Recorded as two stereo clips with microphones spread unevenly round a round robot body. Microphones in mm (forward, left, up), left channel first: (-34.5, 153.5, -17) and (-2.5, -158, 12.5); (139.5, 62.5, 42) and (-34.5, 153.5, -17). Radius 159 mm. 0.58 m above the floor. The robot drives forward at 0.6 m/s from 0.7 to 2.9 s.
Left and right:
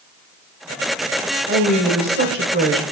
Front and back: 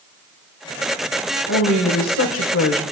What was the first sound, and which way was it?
A woman speaking, 20° right.